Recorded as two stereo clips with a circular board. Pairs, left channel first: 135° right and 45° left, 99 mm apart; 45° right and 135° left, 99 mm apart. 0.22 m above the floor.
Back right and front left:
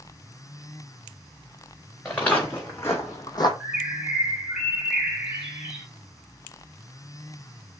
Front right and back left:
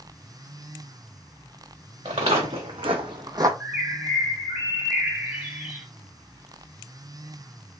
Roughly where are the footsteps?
Behind left.